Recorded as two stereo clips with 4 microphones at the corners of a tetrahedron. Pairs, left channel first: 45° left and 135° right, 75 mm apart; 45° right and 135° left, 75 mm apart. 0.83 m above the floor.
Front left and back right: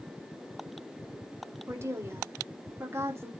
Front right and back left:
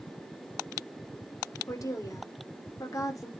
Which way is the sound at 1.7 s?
85° right.